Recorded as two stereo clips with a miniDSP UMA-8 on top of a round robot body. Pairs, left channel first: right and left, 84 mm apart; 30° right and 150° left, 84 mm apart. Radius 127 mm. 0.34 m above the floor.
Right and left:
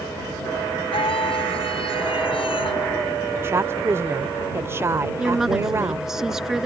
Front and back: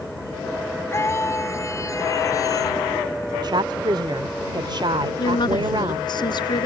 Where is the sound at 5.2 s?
5° left.